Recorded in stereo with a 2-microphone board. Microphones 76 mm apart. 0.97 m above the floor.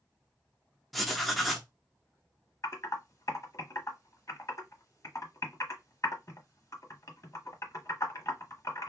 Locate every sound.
0.9 s writing: centre (ahead or behind), 0.6 m
2.6 s typing on a keyboard: 40° left (ahead or behind), 1.0 m